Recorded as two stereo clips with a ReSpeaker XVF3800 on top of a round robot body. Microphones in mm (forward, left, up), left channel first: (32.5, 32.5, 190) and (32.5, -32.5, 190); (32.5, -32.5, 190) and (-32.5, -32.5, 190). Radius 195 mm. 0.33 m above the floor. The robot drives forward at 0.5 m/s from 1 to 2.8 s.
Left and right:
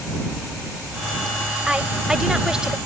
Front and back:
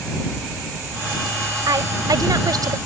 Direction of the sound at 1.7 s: 170° right.